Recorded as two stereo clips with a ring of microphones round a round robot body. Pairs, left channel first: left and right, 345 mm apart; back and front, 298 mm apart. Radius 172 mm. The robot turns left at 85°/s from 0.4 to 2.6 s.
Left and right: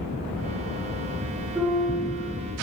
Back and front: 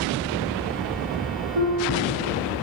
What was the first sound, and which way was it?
A piano, 5° right.